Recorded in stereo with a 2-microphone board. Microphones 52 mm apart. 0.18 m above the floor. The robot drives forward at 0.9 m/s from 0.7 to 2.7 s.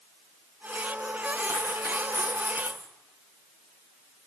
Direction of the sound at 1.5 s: 75° left (ahead or behind).